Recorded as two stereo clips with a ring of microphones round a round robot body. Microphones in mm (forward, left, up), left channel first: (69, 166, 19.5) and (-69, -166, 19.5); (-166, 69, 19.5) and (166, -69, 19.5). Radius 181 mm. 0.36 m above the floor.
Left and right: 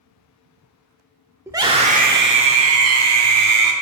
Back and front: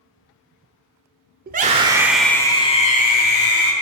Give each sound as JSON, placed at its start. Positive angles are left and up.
{"t": 1.5, "sound": "a scream", "azimuth_deg": -40, "distance_m": 0.8}